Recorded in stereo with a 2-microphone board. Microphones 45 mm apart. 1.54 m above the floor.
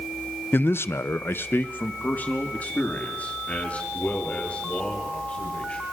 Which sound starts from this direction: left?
A man speaking, at 0.5 s.